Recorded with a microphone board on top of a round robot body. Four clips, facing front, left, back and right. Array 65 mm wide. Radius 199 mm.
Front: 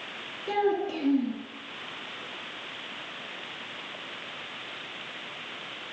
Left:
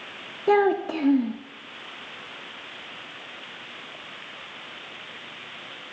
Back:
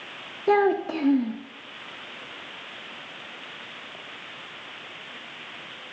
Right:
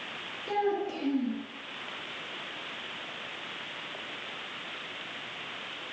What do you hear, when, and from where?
0.5 s a child speaking: 135° left, 0.8 m